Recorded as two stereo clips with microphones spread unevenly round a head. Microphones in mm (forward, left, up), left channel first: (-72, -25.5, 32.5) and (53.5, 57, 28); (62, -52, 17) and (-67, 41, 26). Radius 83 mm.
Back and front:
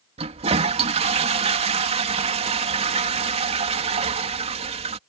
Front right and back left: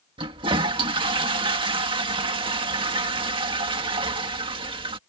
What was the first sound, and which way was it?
A toilet flushing, 85° left.